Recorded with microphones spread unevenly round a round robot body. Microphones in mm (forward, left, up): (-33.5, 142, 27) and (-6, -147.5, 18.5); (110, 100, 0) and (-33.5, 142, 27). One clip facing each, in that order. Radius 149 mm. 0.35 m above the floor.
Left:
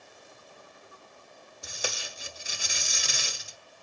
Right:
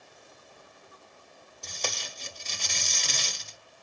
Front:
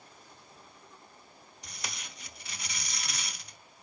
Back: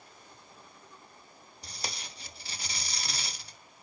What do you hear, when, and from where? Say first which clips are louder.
1.6 s tape being pulled: left 1 dB, back 3 dB; 165° left, 1.1 m